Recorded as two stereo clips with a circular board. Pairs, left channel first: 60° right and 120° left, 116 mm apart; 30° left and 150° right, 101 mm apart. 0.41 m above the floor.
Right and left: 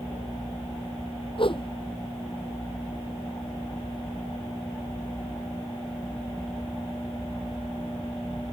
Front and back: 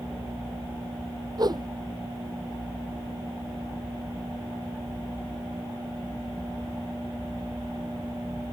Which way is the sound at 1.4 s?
100° right.